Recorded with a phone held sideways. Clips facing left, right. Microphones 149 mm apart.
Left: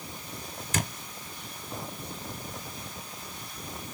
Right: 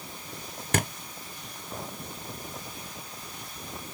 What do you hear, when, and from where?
0.7 s a thud: 60° right (ahead or behind), 1.4 m